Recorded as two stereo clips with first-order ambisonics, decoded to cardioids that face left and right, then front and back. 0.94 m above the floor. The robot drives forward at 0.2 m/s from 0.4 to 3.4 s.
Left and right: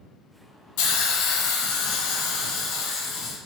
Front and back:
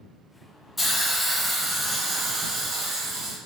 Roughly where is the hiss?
Left.